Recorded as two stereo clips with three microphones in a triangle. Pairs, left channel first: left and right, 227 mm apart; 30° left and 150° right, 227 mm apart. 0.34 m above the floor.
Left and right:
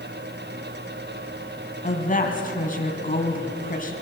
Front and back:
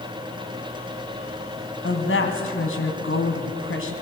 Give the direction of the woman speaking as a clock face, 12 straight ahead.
11 o'clock.